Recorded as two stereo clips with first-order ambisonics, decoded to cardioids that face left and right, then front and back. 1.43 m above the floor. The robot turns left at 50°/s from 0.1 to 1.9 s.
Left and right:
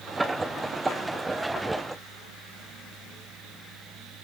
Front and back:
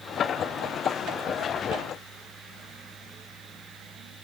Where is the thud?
I don't hear a thud.